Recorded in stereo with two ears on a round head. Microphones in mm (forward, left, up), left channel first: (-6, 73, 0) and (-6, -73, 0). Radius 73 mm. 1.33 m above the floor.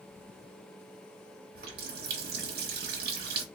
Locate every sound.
1.6 s a running tap: 65° right (ahead or behind), 1.1 m